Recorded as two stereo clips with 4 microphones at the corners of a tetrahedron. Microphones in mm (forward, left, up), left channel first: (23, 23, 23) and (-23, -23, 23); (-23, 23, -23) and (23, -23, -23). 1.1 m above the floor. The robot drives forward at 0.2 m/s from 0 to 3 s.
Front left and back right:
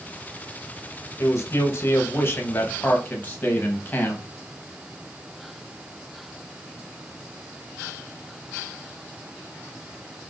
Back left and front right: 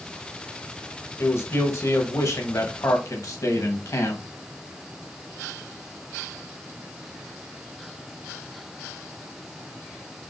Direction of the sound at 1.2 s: 85° left.